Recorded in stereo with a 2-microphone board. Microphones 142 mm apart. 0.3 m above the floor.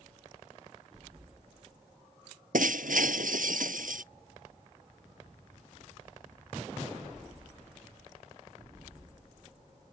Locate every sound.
2.5 s breaking glass: 80° right